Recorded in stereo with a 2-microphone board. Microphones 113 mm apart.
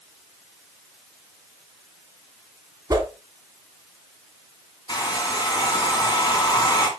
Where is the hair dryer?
35° left (ahead or behind), 1.9 m.